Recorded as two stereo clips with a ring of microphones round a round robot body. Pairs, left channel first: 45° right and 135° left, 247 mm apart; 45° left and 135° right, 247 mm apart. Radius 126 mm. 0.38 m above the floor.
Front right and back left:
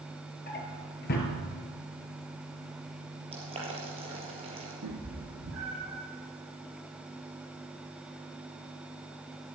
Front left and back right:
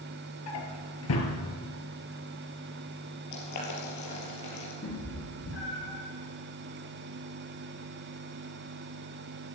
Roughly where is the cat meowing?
Left.